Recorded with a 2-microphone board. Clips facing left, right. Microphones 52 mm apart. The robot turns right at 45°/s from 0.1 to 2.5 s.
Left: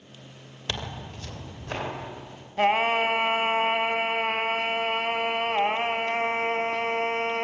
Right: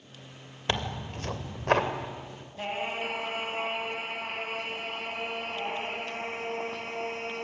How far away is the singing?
About 1.5 m.